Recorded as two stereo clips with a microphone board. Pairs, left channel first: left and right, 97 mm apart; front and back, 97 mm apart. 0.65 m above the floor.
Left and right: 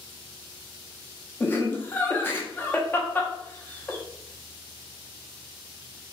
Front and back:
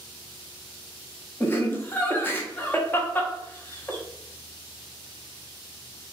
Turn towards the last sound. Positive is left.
turn(degrees=40)